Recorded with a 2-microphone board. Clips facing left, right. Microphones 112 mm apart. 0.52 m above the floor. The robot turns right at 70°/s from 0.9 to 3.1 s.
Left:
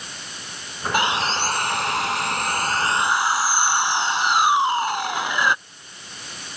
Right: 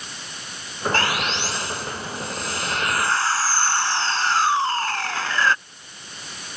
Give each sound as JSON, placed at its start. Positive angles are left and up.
{"t": 0.9, "sound": "sawing", "azimuth_deg": 15}